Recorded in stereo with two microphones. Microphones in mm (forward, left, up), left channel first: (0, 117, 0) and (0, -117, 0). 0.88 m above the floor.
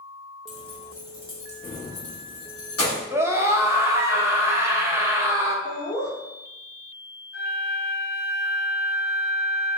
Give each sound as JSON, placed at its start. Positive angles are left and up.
{"t": 0.5, "sound": "keys jangling", "side_deg": 0, "distance_m": 1.1}
{"t": 3.1, "sound": "a scream", "side_deg": -10, "distance_m": 0.7}
{"t": 5.7, "sound": "laughter", "side_deg": 30, "distance_m": 1.2}
{"t": 7.3, "sound": "a flute", "side_deg": 60, "distance_m": 1.3}